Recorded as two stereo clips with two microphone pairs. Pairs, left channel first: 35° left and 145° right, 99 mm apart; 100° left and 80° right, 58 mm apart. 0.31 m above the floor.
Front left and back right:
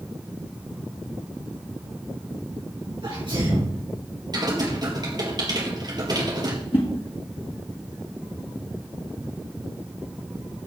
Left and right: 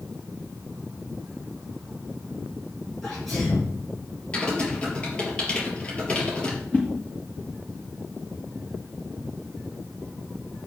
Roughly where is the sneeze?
Behind.